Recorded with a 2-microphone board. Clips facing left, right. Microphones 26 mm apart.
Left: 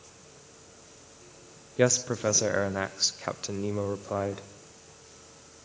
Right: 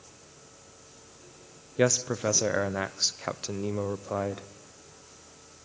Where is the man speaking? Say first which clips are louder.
Left 1 dB; centre (ahead or behind), 0.6 m.